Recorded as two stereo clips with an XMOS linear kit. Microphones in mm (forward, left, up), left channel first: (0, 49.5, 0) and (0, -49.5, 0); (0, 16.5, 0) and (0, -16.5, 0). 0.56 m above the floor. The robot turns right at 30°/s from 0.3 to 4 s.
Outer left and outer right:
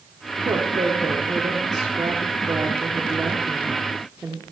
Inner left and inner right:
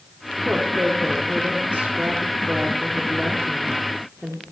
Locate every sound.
0.5 s a woman speaking: 45° right (ahead or behind), 1.1 m; by 4.4 s centre (ahead or behind), 1.1 m